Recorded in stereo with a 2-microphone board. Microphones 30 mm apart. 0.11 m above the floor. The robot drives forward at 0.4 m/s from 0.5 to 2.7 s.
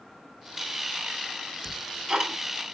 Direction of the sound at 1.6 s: 20° right (ahead or behind).